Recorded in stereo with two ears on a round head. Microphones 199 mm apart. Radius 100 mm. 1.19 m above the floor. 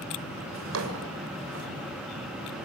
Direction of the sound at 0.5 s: 65° right (ahead or behind).